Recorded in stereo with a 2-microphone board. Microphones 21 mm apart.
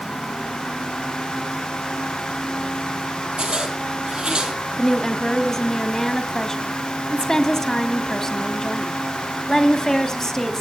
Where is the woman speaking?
25° left (ahead or behind), 1.7 m.